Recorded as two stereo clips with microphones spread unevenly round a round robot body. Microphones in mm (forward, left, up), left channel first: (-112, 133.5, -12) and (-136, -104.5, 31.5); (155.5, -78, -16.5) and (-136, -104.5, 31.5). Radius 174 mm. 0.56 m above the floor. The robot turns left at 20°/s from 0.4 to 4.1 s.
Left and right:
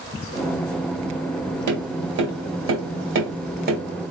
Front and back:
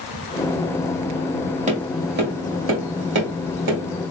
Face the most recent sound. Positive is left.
turn(degrees=-155)